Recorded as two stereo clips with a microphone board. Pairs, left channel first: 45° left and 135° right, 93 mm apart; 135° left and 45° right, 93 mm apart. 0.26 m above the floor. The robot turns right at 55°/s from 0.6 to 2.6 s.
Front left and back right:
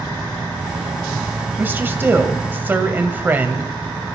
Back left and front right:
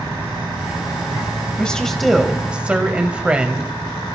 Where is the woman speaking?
165° right, 1.1 m; by 3.7 s 105° right, 1.1 m.